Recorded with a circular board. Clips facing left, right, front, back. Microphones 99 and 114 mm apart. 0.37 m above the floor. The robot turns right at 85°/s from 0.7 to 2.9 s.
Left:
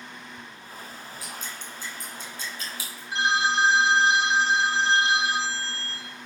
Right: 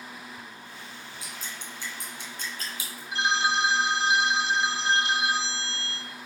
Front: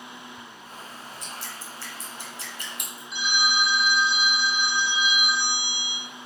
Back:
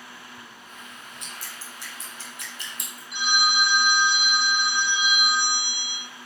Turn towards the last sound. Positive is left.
turn(degrees=150)